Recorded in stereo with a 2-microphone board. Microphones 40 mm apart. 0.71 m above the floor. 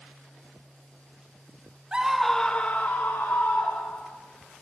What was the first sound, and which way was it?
A scream, 20° right (ahead or behind).